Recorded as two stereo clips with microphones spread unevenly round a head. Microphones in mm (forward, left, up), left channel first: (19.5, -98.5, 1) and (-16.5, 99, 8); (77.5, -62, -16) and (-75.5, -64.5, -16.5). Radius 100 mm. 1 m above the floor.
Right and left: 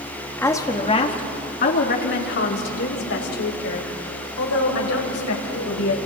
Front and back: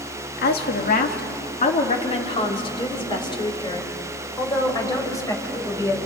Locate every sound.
0.4 s a woman speaking: straight ahead, 2.0 m; by 6.0 s 70° right, 7 m